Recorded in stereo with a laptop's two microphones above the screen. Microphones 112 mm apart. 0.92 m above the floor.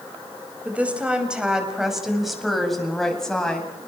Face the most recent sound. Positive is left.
turn(degrees=5)  # may be behind; listen again after turning